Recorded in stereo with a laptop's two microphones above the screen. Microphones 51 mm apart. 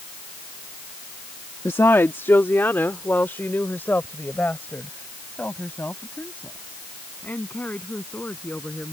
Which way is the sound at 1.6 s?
60° left (ahead or behind).